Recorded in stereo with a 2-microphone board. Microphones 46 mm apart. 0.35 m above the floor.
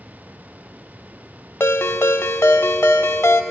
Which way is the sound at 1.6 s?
65° left (ahead or behind).